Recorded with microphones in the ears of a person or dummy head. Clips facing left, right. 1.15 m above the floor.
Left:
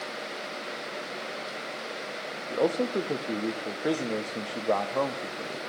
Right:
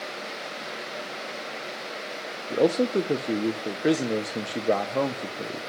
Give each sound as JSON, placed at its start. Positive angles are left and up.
{"t": 2.5, "sound": "a man speaking", "side_deg": -25, "distance_m": 0.5}